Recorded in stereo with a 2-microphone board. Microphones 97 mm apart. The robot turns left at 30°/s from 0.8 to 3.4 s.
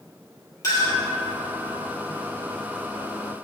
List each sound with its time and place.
0.6 s a clink: 35° left (ahead or behind), 2.0 m; by 1.0 s 40° left (ahead or behind), 2.0 m